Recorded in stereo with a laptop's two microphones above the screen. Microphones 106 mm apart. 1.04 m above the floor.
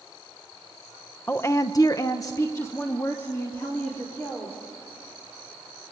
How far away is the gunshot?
I don't hear a gunshot.